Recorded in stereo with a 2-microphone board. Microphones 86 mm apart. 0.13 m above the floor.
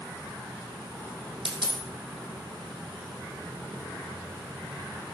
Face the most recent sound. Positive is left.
turn(degrees=-70)  # may be behind; listen again after turning